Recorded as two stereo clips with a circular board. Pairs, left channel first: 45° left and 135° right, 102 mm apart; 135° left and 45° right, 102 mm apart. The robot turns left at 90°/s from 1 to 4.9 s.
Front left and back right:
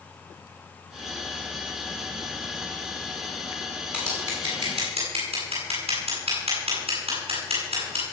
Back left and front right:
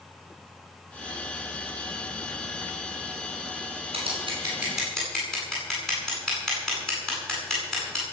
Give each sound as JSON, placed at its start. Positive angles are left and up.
{"t": 3.9, "sound": "scissors", "azimuth_deg": -55, "distance_m": 10.0}